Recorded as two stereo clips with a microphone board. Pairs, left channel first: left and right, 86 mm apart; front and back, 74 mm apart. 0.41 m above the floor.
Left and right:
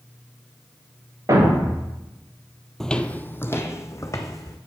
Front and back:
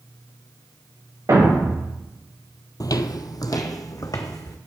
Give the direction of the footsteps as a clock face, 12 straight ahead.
12 o'clock.